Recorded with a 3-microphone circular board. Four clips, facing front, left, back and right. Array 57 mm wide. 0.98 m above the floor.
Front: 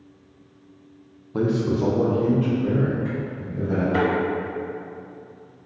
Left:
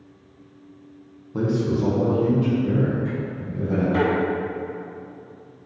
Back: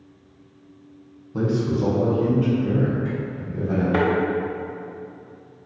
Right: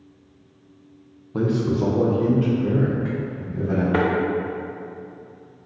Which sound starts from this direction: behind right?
A thud, at 3.9 s.